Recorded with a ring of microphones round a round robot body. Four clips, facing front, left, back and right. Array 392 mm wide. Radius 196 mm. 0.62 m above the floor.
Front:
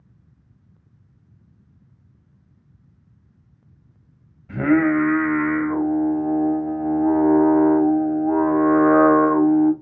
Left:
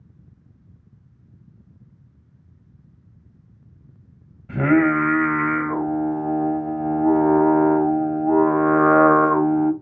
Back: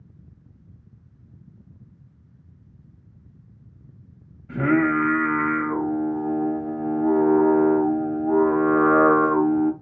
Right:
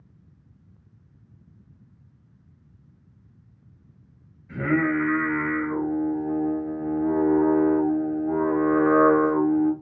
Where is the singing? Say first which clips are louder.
Left 6 dB, front 3 dB; 90° left, 1.7 m.